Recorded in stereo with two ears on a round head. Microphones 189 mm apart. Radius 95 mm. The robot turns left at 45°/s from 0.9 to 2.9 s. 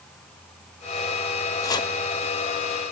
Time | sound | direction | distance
1.6 | chopping | 15° left (ahead or behind) | 1.3 m